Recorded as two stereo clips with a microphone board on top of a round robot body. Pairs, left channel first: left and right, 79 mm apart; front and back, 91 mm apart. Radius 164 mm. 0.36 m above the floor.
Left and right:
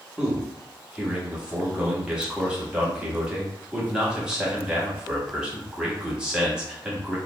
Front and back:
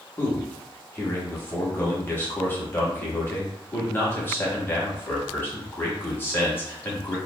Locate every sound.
0.2 s a man speaking: 25° right, 1.2 m